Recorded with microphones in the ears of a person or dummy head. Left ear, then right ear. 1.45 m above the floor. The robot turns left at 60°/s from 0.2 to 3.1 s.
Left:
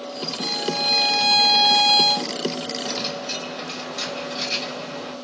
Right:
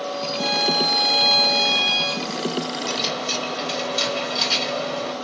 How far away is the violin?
About 0.7 m.